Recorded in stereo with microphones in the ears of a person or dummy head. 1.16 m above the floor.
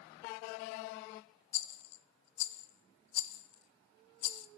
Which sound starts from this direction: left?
A rattle, at 1.5 s.